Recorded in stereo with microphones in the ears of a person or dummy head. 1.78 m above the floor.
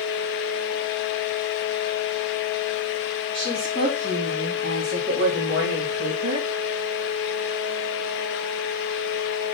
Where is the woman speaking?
35° right (ahead or behind), 5 m; by 6.5 s 50° right (ahead or behind), 3.5 m.